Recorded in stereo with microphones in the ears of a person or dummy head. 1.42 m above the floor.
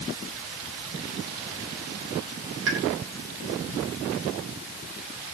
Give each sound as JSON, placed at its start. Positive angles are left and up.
{"t": 2.7, "sound": "a pop", "side_deg": -70, "distance_m": 3.0}